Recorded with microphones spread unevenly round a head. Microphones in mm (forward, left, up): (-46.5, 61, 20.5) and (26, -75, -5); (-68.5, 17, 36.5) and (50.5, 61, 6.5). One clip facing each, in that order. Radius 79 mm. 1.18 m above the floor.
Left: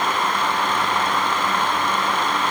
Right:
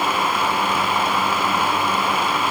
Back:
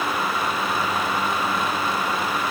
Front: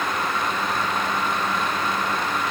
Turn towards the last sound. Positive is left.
No sound to turn to.